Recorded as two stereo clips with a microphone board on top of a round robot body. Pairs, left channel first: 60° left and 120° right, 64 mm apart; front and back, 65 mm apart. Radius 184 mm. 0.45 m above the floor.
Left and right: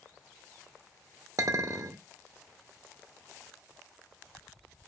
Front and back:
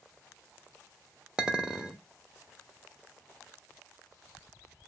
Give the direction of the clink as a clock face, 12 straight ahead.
3 o'clock.